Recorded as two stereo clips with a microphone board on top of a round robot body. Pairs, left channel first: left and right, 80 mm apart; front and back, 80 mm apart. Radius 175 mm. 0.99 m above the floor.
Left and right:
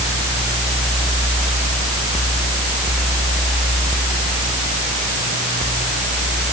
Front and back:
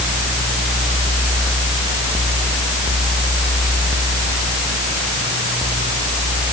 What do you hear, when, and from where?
Only background noise.